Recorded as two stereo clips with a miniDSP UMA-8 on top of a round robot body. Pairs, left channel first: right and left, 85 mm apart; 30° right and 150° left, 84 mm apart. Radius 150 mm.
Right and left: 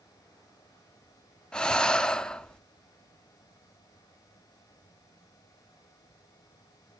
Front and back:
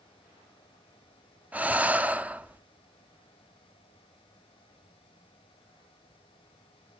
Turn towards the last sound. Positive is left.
turn(degrees=-160)